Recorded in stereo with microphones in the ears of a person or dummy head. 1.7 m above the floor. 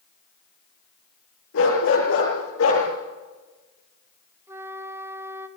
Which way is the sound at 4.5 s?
20° right (ahead or behind).